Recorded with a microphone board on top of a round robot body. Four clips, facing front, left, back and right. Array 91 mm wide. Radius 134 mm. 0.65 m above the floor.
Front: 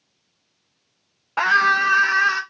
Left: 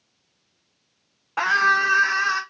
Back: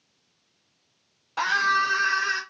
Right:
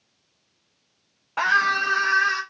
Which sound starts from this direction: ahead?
A scream, at 1.4 s.